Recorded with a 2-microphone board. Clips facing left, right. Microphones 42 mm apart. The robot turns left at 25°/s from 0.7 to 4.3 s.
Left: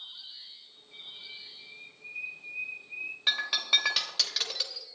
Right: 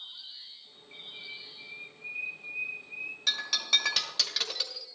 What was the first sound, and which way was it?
A bird, 135° right.